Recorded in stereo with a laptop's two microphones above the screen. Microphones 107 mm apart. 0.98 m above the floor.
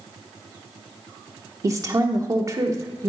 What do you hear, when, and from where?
1.6 s a woman speaking: 30° right (ahead or behind), 0.6 m